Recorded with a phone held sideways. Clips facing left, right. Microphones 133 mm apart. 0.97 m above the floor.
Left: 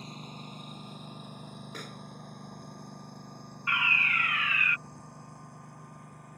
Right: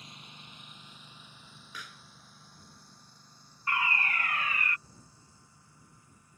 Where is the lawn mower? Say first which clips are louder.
Left 9 dB; 40° left (ahead or behind); by 6.4 s 65° left (ahead or behind).